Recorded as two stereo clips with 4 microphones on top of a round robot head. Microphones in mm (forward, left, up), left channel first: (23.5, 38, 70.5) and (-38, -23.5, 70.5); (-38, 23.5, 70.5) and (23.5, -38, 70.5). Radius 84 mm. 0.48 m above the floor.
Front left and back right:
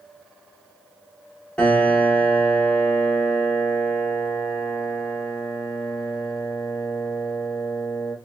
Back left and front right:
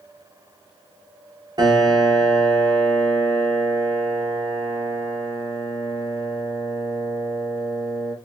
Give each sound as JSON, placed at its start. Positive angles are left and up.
{"t": 1.6, "sound": "a piano", "azimuth_deg": -30, "distance_m": 1.5}